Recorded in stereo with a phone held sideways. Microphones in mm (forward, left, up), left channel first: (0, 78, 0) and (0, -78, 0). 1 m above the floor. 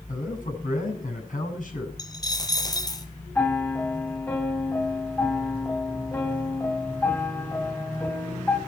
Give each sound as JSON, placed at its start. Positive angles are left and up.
{"t": 0.1, "sound": "a man speaking", "side_deg": 60, "distance_m": 7.0}
{"t": 2.0, "sound": "a dropped coin", "side_deg": 25, "distance_m": 1.9}
{"t": 3.4, "sound": "a piano", "side_deg": 15, "distance_m": 1.7}